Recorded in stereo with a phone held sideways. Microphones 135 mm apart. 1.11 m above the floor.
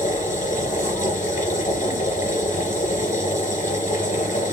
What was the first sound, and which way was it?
A machine running, 75° left (ahead or behind).